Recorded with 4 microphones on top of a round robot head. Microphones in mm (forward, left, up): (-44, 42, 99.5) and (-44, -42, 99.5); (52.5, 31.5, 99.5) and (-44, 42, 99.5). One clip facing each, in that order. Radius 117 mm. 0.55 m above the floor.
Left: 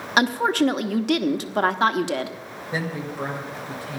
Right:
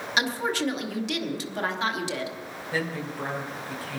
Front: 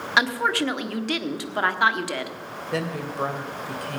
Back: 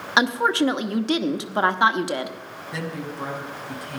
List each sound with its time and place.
0.2 s a woman speaking: 110° left, 1.2 m
2.7 s a woman speaking: 20° left, 2.5 m